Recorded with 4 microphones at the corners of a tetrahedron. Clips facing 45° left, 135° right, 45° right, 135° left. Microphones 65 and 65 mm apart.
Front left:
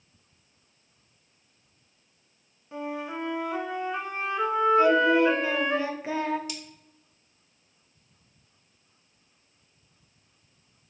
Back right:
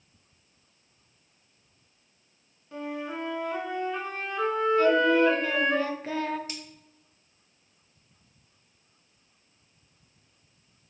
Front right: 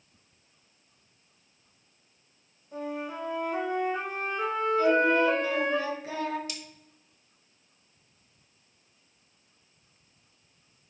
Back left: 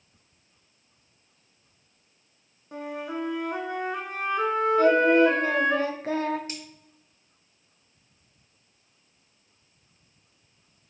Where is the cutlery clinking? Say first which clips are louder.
Front left 1 dB, back left 3 dB; straight behind, 0.9 m.